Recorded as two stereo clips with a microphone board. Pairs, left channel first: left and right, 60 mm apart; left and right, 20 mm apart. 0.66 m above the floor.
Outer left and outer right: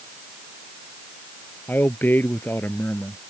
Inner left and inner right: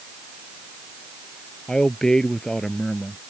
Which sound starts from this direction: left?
A man speaking, at 1.7 s.